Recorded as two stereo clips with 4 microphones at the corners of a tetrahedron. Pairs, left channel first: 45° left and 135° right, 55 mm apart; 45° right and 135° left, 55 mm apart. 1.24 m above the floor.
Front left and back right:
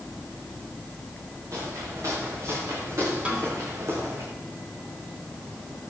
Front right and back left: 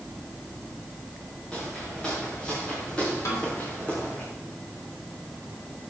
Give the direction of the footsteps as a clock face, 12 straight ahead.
4 o'clock.